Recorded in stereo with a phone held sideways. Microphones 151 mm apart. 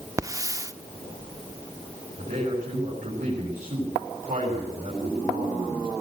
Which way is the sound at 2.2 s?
65° right (ahead or behind).